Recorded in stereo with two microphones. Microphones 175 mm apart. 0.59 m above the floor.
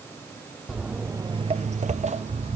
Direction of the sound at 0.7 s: 5° right (ahead or behind).